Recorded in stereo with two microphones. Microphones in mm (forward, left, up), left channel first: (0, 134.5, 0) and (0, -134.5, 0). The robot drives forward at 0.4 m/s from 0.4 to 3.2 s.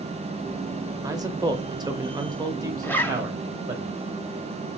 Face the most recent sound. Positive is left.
turn(degrees=5)  # may be behind; listen again after turning